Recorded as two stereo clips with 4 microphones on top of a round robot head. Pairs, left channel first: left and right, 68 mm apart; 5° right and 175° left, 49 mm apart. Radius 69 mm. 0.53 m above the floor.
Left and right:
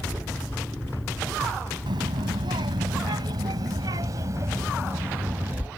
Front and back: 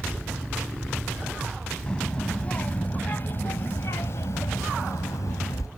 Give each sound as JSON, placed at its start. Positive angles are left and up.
{"t": 1.9, "sound": "a child speaking", "azimuth_deg": -85}